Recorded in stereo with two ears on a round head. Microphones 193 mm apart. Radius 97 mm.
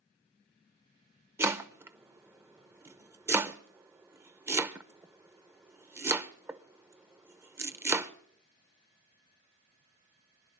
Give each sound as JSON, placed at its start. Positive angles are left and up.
{"t": 1.4, "sound": "chopping", "side_deg": -10, "distance_m": 0.6}